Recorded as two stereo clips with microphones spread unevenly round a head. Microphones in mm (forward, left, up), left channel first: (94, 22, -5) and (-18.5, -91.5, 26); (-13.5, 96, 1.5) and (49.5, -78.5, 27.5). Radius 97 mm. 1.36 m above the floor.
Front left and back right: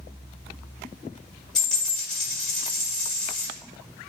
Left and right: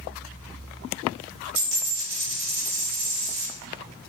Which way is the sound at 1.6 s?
55° right.